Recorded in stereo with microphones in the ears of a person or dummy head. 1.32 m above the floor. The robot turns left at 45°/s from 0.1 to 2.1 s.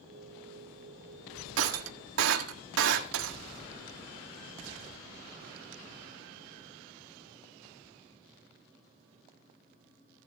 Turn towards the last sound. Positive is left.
turn(degrees=-70)  # may be behind; listen again after turning